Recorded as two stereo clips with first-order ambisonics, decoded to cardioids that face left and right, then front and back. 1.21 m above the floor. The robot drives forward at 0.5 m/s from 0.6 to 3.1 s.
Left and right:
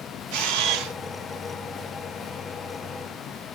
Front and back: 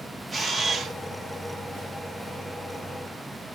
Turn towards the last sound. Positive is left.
turn(degrees=-155)